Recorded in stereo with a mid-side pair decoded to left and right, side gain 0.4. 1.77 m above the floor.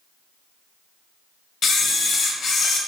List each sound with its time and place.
1.6 s a camera shutter: 55° left, 1.1 m